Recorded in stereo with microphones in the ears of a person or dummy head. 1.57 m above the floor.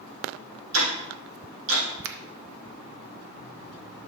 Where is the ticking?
80° right, 3 m.